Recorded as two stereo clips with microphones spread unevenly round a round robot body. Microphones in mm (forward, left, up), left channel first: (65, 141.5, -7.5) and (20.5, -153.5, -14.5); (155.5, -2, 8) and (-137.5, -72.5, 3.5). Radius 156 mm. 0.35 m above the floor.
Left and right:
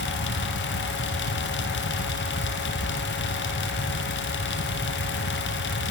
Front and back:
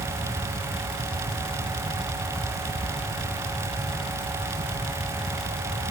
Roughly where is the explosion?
No explosion in this recording.